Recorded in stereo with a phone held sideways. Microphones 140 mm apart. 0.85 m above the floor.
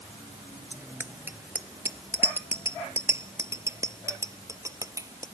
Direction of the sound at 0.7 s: 15° right (ahead or behind).